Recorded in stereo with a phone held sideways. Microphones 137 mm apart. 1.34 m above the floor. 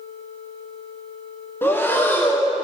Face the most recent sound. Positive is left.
turn(degrees=15)  # may be behind; listen again after turning